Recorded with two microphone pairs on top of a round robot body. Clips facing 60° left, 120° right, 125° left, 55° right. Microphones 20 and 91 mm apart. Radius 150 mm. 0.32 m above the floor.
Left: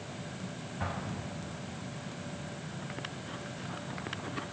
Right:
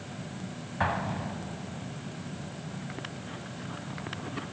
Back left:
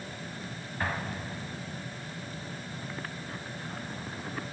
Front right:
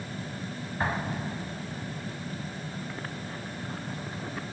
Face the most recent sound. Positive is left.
turn(degrees=-130)